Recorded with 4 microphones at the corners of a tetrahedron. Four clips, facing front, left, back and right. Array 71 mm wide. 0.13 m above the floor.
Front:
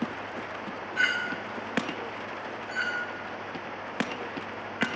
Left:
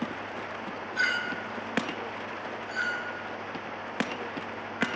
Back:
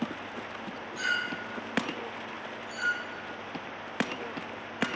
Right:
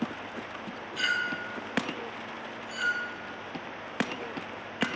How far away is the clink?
About 1.5 m.